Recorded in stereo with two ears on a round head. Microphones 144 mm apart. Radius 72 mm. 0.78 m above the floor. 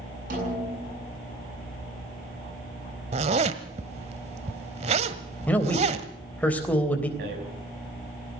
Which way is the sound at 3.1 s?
45° right (ahead or behind).